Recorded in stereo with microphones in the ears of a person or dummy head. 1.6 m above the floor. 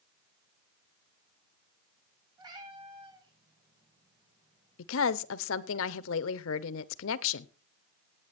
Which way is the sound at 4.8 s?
75° left (ahead or behind).